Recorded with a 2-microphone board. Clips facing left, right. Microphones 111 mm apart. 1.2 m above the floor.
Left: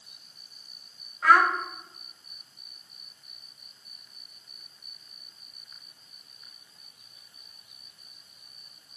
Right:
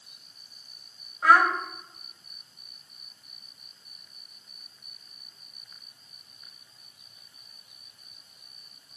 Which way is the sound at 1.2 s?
30° right (ahead or behind).